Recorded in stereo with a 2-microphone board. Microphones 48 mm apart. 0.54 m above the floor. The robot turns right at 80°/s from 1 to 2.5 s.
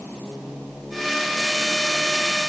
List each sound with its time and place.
Only background noise.